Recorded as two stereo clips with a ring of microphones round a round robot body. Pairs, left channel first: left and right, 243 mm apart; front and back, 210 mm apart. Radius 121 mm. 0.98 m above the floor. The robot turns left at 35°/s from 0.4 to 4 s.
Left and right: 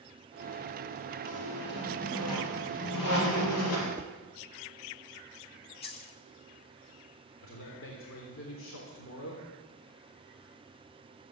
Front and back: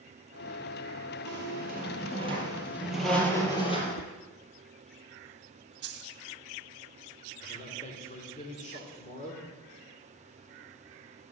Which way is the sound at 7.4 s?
55° left.